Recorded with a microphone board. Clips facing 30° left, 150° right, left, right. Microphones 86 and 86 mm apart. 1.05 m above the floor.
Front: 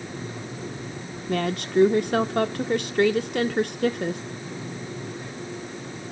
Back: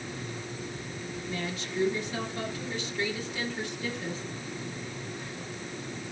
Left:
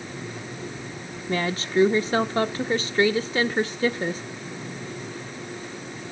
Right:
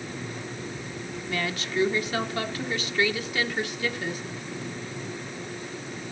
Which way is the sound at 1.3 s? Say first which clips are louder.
Front 12 dB, left 6 dB; 35° left.